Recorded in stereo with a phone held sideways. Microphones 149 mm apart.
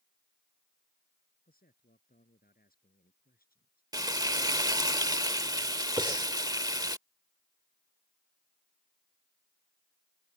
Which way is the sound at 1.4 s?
75° left (ahead or behind).